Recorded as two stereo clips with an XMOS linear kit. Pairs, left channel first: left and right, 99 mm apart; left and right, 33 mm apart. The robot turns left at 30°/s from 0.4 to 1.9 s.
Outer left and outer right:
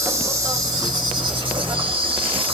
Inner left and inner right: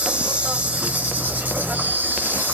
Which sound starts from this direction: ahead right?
An insect, at 0.0 s.